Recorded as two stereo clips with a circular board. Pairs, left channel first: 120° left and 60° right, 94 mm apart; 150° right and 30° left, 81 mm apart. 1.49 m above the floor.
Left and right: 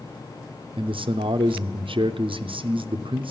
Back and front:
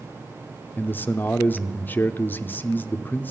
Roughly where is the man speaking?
Right.